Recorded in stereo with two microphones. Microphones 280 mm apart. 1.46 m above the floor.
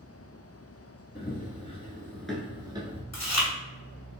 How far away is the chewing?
About 1.1 m.